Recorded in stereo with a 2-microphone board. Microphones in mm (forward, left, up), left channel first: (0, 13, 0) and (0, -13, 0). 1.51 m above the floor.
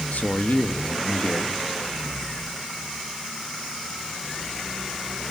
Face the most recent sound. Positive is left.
turn(degrees=80)